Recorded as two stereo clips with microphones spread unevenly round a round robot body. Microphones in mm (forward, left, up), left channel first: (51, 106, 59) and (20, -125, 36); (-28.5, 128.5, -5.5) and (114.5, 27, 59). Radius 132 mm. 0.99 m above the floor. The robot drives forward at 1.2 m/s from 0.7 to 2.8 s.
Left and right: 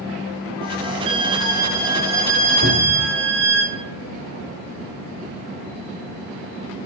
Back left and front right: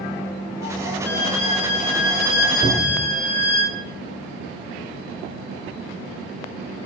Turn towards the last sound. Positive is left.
turn(degrees=-145)